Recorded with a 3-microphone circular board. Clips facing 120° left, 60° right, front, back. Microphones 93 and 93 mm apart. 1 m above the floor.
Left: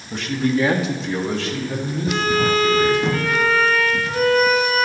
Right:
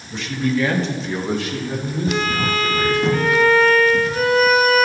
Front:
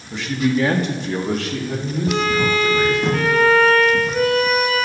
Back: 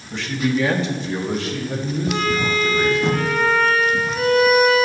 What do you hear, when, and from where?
0.1 s a man speaking: 85° left, 1.2 m; by 3.1 s 5° right, 4 m
2.1 s a violin: 25° left, 1.9 m